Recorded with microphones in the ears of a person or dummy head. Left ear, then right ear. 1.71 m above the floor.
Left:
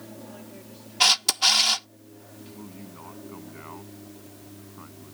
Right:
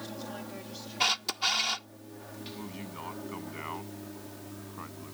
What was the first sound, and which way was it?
An aircraft, 40° right (ahead or behind).